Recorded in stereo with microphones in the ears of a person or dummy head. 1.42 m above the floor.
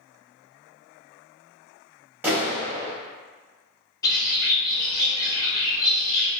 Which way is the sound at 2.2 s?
5° right (ahead or behind).